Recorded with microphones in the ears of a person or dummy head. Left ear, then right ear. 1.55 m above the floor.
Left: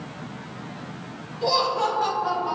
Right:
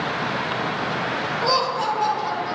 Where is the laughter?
15° right (ahead or behind), 3 m; by 2.5 s 25° right (ahead or behind), 3.5 m.